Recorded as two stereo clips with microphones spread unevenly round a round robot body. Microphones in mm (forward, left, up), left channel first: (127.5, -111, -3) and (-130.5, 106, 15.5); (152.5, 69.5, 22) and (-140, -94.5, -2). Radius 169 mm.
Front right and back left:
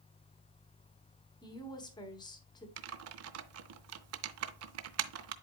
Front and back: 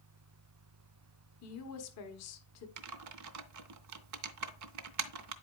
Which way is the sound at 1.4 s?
25° left.